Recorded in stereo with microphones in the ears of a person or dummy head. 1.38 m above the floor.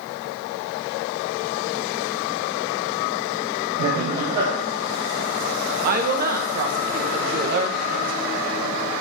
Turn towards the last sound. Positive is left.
turn(degrees=-40)  # may be behind; listen again after turning